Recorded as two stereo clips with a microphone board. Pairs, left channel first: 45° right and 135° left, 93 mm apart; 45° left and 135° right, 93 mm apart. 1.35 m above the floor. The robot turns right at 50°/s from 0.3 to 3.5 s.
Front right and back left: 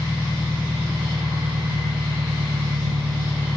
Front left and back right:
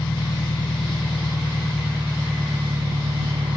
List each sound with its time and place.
0.0 s an engine running: 35° left; by 3.6 s 165° right